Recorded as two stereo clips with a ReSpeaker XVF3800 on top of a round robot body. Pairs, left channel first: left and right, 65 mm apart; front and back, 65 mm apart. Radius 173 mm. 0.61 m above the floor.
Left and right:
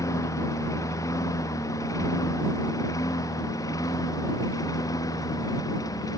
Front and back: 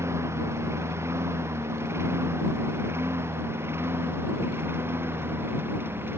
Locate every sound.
0.0 s a lawn mower: 130° left; by 6.2 s 120° left